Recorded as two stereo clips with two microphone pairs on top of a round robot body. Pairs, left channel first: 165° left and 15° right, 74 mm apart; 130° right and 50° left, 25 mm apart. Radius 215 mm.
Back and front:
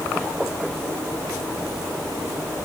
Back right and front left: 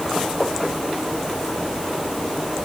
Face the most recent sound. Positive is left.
No sound to turn to.